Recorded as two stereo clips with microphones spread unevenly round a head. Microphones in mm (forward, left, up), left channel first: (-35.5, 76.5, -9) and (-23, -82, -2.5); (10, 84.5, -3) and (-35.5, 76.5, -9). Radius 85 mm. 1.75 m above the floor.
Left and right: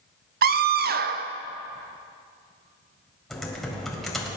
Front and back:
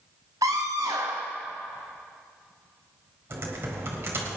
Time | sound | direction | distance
0.4 | a scream | 115° right | 0.8 m
3.3 | typing on a keyboard | 175° right | 2 m